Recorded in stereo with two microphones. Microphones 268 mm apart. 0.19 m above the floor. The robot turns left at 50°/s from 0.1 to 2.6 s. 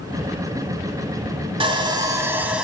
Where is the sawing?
20° right (ahead or behind), 0.9 m; by 2.6 s 5° right (ahead or behind), 0.9 m.